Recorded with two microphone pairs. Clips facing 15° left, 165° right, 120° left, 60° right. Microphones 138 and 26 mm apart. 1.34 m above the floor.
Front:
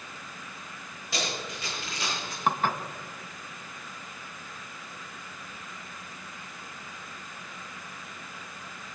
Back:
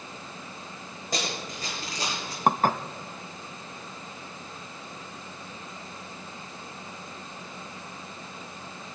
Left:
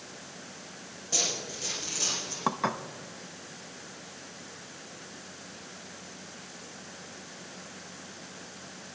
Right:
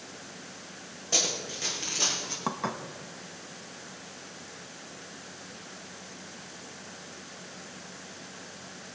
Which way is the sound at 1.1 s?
125° right.